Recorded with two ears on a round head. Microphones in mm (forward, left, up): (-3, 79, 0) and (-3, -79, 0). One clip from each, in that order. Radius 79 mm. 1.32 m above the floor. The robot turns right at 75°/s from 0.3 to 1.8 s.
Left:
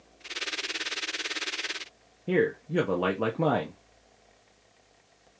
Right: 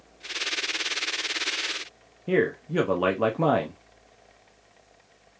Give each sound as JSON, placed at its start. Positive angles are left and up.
{"t": 2.3, "sound": "a man speaking", "side_deg": -10, "distance_m": 0.6}